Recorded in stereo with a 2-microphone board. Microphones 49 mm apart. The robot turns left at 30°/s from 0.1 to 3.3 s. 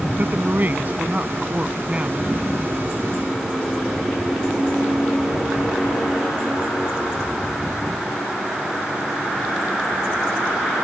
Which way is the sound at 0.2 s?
85° right.